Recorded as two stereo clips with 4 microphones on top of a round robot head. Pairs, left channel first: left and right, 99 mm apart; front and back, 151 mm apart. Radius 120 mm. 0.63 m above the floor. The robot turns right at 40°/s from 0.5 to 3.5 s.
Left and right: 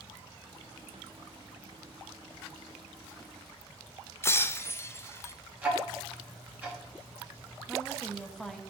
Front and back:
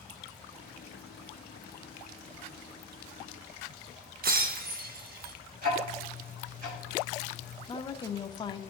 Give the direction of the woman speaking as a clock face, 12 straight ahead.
12 o'clock.